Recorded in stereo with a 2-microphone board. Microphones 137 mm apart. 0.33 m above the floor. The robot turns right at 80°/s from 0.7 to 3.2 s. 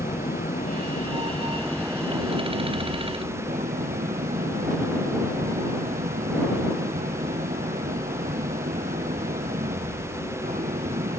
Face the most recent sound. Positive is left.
turn(degrees=-75)